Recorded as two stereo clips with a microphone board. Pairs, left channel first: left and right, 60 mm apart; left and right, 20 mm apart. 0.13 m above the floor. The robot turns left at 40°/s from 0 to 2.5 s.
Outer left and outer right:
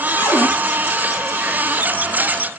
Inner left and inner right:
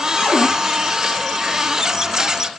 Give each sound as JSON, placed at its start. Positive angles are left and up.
{"t": 0.2, "sound": "a cupboard door", "side_deg": 55, "distance_m": 1.3}